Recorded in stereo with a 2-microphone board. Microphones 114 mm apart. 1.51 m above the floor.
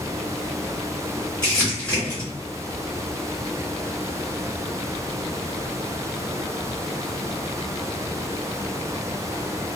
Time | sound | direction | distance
1.4 | crumpling | 15° left (ahead or behind) | 1.6 m